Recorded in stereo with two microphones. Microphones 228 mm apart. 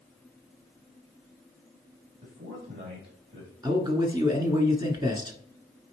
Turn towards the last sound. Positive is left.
turn(degrees=-15)  # may be behind; listen again after turning